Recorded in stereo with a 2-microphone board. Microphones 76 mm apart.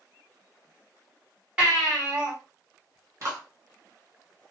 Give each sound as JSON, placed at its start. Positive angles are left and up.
{"t": 1.6, "sound": "a baby crying", "side_deg": -15, "distance_m": 1.5}
{"t": 3.2, "sound": "a clap", "side_deg": -45, "distance_m": 1.2}